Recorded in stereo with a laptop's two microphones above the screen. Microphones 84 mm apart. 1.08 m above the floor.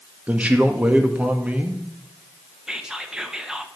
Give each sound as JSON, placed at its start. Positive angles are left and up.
{"t": 0.3, "sound": "a man speaking", "side_deg": -15, "distance_m": 1.5}
{"t": 2.7, "sound": "whispering", "side_deg": -10, "distance_m": 0.9}